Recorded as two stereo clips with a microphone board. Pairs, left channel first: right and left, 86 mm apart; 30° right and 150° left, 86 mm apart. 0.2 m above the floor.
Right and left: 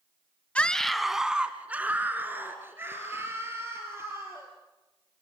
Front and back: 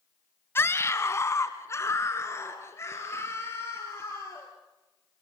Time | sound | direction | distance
0.6 | a scream | 30° right | 1.2 m